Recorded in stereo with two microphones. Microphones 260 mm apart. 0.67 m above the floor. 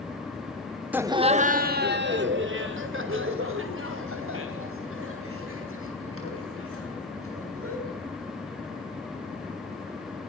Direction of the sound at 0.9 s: 5° right (ahead or behind).